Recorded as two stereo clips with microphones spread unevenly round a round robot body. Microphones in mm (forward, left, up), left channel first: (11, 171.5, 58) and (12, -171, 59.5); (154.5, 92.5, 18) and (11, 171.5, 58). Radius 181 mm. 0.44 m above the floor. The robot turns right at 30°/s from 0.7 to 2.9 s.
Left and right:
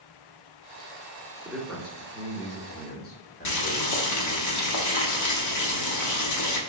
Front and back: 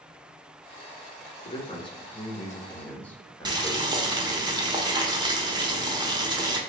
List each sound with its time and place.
1.4 s a man speaking: 5° right, 1.5 m; by 4.5 s 35° left, 1.5 m
3.5 s boiling: 75° left, 1.3 m